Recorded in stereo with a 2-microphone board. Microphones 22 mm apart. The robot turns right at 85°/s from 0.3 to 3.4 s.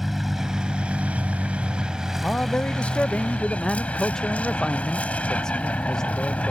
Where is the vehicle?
175° right; by 6.5 s 90° left.